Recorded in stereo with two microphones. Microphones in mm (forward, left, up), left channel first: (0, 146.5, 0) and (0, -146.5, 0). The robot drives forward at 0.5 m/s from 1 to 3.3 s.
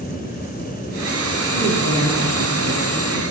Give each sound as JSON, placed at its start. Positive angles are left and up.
{"t": 1.5, "sound": "a woman speaking", "side_deg": -60, "distance_m": 3.0}